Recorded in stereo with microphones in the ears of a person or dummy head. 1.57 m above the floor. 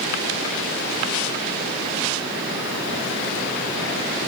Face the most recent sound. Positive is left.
No sound to turn to.